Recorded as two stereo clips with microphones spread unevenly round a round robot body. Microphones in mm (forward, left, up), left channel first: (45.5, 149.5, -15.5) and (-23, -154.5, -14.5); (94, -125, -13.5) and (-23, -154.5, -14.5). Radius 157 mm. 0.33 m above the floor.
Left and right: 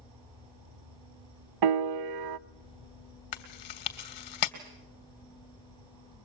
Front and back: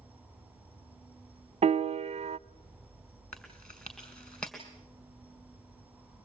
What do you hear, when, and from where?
0.0 s an insect: 90° right, 3 m
1.6 s a piano: 125° right, 0.7 m
3.3 s chewing: 100° left, 2.5 m